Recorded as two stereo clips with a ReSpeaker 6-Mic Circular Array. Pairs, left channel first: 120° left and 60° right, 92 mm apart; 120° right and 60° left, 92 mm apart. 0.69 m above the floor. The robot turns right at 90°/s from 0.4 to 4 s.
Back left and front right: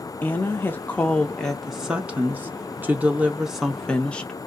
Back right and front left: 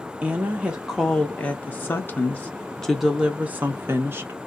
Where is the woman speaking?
95° left, 0.6 m; by 4.4 s 60° left, 0.6 m.